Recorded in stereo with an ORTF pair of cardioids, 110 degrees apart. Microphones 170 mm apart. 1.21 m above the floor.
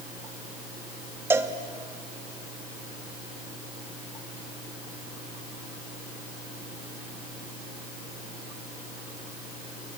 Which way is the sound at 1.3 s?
15° right.